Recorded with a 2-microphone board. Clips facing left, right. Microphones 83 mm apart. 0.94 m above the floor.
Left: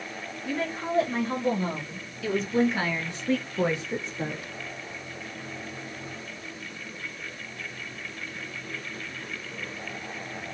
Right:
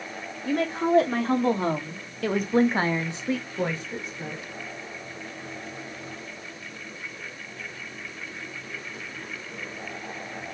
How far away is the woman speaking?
About 3 m.